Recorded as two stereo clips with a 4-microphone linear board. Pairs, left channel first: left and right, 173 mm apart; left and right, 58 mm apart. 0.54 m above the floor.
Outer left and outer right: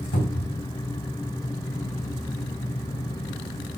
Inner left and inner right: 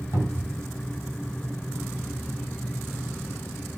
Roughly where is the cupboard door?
Left.